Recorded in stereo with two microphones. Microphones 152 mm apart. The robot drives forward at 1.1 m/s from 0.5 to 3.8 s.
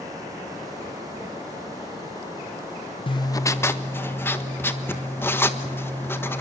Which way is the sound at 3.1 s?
35° left (ahead or behind).